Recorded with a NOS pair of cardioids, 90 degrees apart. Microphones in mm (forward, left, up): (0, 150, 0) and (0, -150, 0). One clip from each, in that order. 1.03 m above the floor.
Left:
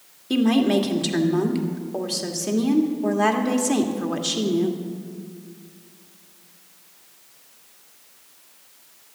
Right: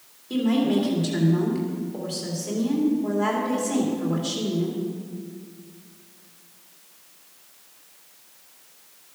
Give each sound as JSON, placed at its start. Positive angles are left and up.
{"t": 0.3, "sound": "a woman speaking", "azimuth_deg": 50, "distance_m": 2.0}